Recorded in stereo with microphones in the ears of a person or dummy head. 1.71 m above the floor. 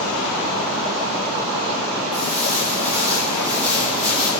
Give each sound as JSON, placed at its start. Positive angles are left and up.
{"t": 2.1, "sound": "footsteps", "side_deg": -20, "distance_m": 4.0}